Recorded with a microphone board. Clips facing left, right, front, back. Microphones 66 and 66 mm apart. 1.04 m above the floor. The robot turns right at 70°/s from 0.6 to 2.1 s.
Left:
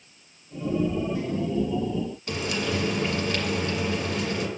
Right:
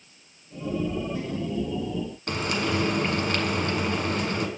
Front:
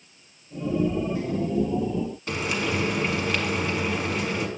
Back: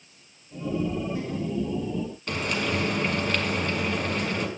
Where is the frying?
80° right, 1.3 m.